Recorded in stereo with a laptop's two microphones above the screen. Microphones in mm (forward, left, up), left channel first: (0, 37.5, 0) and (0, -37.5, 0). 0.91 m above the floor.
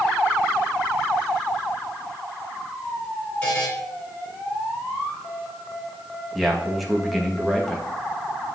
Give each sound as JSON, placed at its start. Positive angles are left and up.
{"t": 3.4, "sound": "a buzzer", "side_deg": 25, "distance_m": 2.5}
{"t": 6.3, "sound": "a man speaking", "side_deg": 0, "distance_m": 1.0}